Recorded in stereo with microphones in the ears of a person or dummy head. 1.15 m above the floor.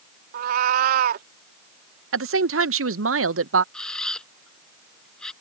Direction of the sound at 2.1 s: 65° right (ahead or behind).